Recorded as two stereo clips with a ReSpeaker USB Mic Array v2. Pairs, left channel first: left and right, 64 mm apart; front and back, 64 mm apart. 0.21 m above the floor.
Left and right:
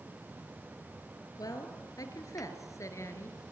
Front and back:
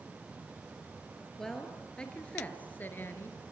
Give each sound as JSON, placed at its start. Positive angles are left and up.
{"t": 1.4, "sound": "a woman speaking", "azimuth_deg": 85, "distance_m": 4.0}